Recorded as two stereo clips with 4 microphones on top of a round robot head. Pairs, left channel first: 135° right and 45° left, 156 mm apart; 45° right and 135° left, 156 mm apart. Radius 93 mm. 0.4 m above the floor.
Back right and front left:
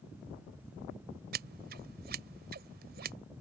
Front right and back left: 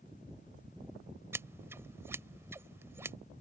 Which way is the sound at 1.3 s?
60° left.